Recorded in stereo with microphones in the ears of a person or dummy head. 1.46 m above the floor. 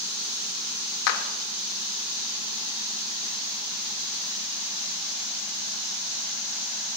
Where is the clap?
65° left (ahead or behind), 1.4 m.